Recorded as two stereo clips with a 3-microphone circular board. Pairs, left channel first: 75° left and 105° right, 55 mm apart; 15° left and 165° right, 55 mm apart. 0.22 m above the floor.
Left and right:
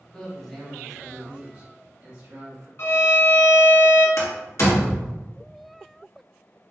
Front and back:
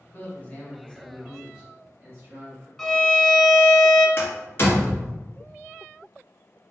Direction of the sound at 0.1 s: 10° left.